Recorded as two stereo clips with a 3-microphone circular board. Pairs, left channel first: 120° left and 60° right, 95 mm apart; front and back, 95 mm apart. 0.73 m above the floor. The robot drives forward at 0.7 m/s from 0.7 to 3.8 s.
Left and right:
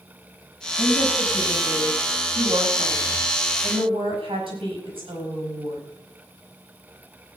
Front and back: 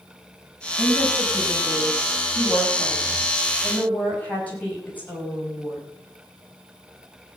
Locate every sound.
0.8 s a woman speaking: 55° right, 7.5 m; by 5.8 s 75° right, 6.5 m